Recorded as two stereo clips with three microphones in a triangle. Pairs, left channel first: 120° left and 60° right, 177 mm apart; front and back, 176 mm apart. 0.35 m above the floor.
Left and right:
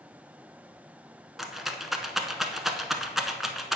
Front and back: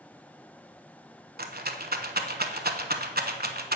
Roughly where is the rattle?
Behind right.